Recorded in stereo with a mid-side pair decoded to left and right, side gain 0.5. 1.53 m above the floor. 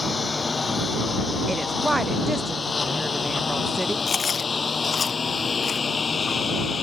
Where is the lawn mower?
25° left; by 6.8 s 35° left.